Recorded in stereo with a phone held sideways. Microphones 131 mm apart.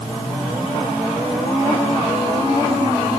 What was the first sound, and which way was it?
Only background noise.